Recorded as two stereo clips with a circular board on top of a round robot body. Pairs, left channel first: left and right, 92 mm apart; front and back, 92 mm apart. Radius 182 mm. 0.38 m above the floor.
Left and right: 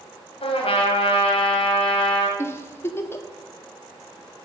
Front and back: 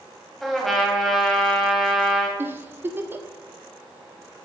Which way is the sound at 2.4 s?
130° left.